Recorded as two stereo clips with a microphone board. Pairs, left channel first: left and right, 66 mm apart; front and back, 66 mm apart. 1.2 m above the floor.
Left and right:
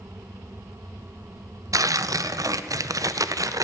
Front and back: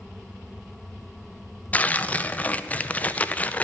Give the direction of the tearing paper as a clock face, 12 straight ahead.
2 o'clock.